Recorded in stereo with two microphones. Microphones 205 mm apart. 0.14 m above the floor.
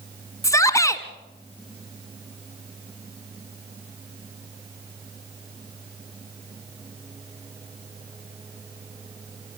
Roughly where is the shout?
Centre.